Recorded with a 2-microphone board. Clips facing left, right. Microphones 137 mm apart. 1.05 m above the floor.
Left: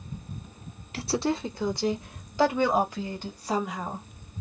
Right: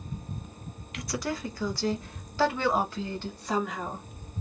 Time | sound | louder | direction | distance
0.9 | a woman speaking | left 6 dB | 35° left (ahead or behind) | 0.6 m